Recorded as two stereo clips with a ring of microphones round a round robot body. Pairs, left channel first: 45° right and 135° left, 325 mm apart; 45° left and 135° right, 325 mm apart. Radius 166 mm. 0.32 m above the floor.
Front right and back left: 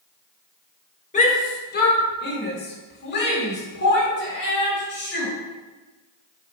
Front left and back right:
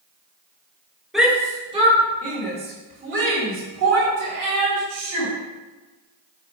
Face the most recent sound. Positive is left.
turn(degrees=-100)